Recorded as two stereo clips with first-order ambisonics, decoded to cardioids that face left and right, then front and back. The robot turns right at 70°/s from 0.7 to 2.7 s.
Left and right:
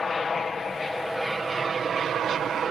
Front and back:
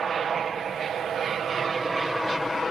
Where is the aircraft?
150° left; by 2.7 s 70° right.